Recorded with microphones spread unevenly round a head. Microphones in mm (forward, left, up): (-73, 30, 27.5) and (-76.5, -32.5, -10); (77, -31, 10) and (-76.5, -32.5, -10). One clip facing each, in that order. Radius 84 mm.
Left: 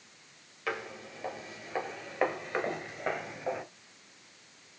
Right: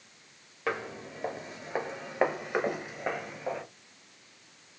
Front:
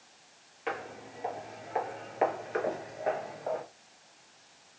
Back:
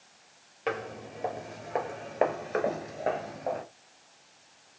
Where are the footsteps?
145° right, 2 m; by 3.6 s 125° left, 1.6 m.